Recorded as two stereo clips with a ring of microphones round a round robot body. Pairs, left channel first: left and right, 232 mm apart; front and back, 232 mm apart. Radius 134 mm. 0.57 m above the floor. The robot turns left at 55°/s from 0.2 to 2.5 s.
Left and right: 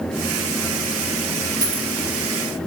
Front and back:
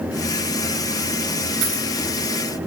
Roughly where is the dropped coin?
Behind right.